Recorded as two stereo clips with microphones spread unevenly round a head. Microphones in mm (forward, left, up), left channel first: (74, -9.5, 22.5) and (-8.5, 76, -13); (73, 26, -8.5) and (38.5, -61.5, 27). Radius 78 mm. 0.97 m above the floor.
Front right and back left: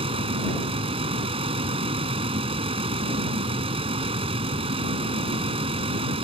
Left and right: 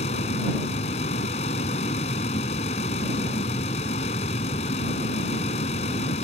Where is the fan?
90° left.